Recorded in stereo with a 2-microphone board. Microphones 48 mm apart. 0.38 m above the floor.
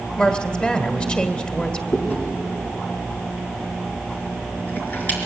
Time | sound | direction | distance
0.2 | a woman speaking | 25° left (ahead or behind) | 1.7 m
1.9 | chewing | 35° left (ahead or behind) | 4 m